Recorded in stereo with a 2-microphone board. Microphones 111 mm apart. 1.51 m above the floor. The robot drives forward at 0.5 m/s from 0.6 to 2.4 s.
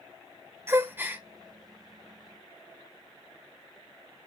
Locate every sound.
0.7 s a gasp: 25° right (ahead or behind), 0.6 m; by 1.2 s 15° right (ahead or behind), 0.8 m